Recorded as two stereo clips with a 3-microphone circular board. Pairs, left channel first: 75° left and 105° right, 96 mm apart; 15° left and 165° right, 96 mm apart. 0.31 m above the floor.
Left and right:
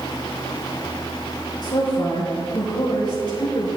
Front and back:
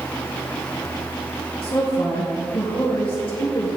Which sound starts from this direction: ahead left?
A woman speaking, at 1.6 s.